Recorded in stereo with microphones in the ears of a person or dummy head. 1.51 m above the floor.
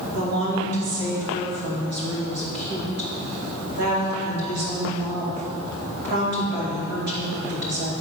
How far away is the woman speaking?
About 2.5 m.